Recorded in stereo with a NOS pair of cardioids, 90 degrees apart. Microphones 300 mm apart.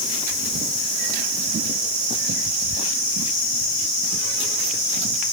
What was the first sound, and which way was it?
Only background noise.